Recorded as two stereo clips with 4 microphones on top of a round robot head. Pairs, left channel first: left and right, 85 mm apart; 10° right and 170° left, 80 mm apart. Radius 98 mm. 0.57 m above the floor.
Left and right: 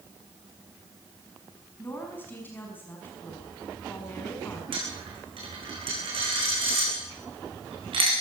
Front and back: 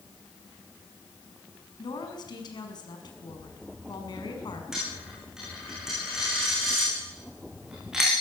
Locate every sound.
1.8 s a woman speaking: 20° left, 6 m
4.7 s a dropped coin: 105° right, 10 m